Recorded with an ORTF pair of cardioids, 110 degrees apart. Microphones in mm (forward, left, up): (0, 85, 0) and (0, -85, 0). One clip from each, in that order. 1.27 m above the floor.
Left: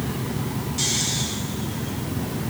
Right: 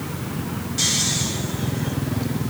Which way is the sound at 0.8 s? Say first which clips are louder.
Right 3 dB; 15° right.